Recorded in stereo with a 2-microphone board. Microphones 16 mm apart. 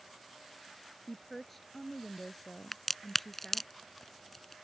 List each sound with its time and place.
1.1 s a woman speaking: 10° left (ahead or behind)
2.7 s a crack: 15° left (ahead or behind)